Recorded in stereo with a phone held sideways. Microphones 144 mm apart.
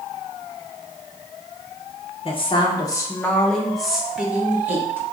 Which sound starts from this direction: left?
A woman speaking, at 2.2 s.